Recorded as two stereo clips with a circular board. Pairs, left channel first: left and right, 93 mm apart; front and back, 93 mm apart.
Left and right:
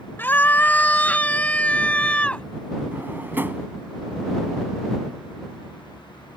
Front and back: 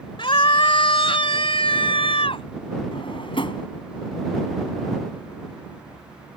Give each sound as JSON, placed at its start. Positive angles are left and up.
{"t": 0.2, "sound": "a scream", "azimuth_deg": 20}
{"t": 2.9, "sound": "a drawer", "azimuth_deg": -20}